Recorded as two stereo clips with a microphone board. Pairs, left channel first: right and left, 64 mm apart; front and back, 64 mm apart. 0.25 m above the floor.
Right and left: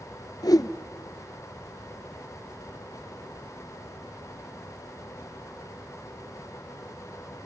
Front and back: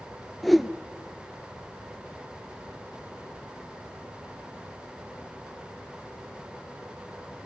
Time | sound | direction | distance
0.4 | a whoosh | 90° right | 0.6 m